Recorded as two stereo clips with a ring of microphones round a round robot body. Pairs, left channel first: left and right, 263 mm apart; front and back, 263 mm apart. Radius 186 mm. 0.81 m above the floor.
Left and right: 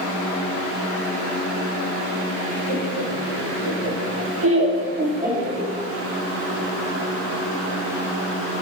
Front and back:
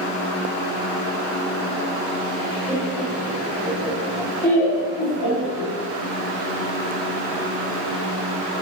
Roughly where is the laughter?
Behind right.